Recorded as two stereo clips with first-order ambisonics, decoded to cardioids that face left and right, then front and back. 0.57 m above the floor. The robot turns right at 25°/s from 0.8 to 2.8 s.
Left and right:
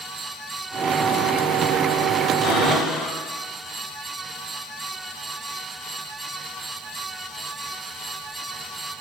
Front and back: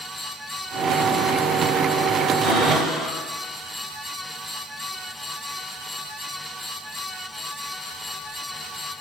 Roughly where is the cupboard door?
Behind left.